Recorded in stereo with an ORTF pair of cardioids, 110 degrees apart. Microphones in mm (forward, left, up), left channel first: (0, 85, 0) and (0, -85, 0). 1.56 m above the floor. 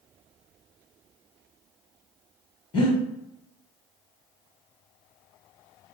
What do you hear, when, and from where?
2.7 s breathing: 30° left, 1.3 m